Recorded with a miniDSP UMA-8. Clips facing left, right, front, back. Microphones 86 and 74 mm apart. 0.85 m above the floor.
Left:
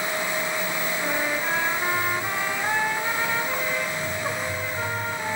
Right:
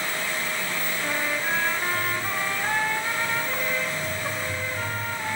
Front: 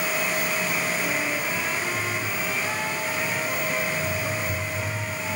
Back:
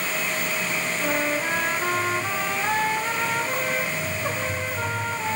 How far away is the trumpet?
About 1.6 m.